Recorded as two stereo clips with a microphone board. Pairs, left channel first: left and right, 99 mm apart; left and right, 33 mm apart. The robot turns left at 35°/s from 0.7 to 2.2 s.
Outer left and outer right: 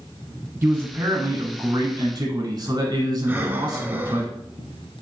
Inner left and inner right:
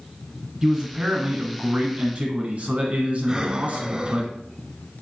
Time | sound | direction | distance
0.6 | a man speaking | 35° right | 1.3 m
3.3 | breathing | 20° right (ahead or behind) | 0.5 m